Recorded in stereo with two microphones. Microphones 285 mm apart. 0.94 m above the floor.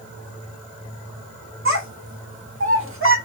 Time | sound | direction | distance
1.6 | a child speaking | 45° right (ahead or behind) | 1.7 m